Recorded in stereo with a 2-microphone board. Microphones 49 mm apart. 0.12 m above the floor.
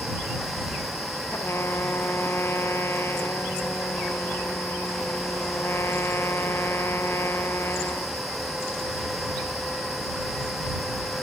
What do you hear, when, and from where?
1.3 s a trumpet: 60° left (ahead or behind)